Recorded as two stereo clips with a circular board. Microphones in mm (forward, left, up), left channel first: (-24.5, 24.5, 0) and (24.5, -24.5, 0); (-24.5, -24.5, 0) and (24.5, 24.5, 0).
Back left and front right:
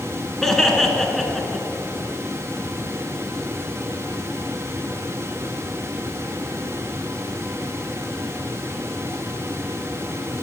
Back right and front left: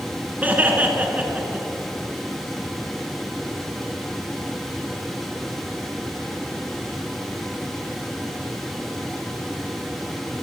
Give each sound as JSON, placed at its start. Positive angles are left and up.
{"t": 0.4, "sound": "laughter", "azimuth_deg": 55, "distance_m": 1.2}